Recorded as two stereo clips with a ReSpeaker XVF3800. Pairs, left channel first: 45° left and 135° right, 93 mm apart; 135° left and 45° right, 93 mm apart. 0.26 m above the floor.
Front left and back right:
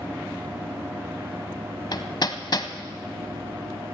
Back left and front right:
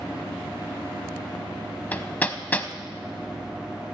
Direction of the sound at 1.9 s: 65° left.